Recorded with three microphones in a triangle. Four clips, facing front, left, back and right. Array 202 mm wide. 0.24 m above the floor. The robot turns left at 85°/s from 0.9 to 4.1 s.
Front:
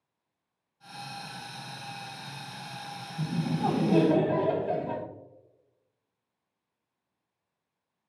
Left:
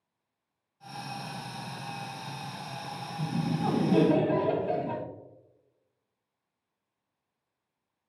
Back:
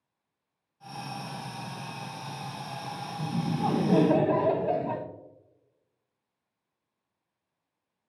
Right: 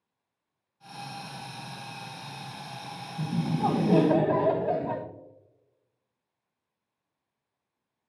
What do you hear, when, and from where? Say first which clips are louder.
3.2 s laughter: right 3 dB, front 1 dB; 50° right, 1.5 m; by 5.0 s 125° right, 1.5 m